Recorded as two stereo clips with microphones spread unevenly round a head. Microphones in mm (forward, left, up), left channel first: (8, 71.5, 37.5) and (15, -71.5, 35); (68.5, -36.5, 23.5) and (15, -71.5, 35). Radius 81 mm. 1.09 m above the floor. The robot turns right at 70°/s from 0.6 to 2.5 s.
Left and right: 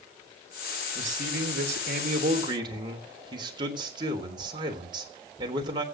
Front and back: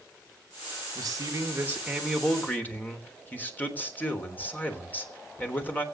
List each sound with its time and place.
0.9 s a man speaking: 135° right, 3.5 m; by 5.8 s 30° right, 3.5 m